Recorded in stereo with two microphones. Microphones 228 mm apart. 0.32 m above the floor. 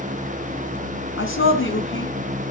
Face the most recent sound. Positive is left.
turn(degrees=60)  # may be behind; listen again after turning